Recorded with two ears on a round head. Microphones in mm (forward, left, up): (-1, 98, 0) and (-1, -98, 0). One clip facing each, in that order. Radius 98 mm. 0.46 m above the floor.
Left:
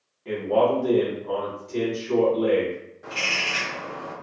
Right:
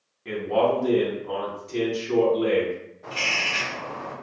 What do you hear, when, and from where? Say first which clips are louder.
0.2 s a man speaking: left 1 dB; 25° right (ahead or behind), 0.9 m
3.0 s a bird: even; 15° left (ahead or behind), 0.7 m